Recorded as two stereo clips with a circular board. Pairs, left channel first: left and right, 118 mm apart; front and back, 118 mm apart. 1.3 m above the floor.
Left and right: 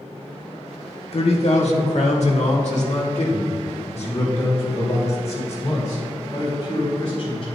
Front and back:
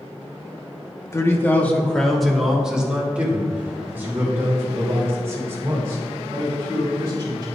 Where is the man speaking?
60° left, 1.5 m; by 7.4 s 120° left, 5.5 m.